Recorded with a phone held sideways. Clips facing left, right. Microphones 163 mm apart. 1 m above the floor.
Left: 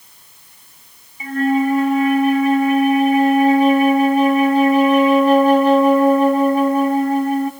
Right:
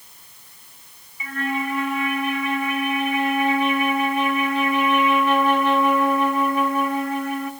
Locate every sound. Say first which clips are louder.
1.2 s a flute: left 10 dB; 35° left (ahead or behind), 0.5 m